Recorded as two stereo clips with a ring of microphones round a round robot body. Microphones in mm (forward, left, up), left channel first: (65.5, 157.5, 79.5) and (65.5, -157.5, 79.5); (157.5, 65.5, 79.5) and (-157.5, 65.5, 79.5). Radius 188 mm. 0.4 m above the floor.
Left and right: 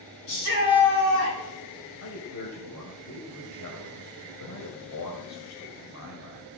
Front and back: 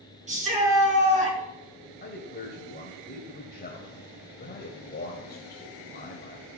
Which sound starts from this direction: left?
A shout, at 0.3 s.